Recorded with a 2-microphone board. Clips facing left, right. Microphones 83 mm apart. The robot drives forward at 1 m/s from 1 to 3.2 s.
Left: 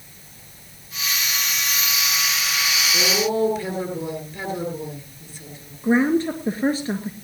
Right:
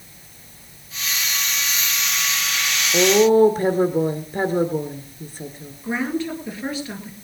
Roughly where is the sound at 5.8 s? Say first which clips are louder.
Left 6 dB; left.